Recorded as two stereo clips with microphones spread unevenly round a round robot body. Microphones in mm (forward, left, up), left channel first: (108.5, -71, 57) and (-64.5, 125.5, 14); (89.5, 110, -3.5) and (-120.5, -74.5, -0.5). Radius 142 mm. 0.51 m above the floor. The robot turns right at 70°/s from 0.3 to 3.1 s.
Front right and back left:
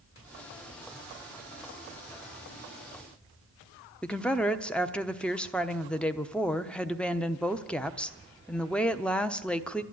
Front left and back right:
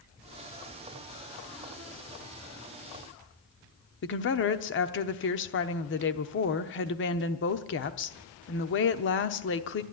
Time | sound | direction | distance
4.0 | a woman speaking | 45° left | 0.9 m